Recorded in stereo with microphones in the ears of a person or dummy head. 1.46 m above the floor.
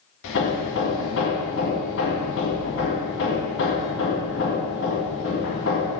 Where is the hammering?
70° left (ahead or behind), 1.9 m.